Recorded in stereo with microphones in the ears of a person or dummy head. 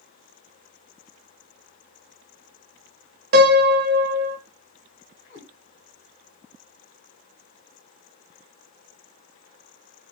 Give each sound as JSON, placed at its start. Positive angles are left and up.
{"t": 3.3, "sound": "a piano", "side_deg": -50, "distance_m": 0.8}
{"t": 5.3, "sound": "a cat meowing", "side_deg": 45, "distance_m": 2.5}